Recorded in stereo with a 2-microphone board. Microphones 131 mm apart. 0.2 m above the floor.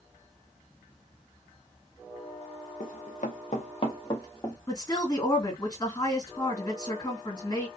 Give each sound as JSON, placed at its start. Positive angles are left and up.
{"t": 2.8, "sound": "running footsteps", "side_deg": 80, "distance_m": 0.8}
{"t": 4.7, "sound": "a woman speaking", "side_deg": 30, "distance_m": 2.0}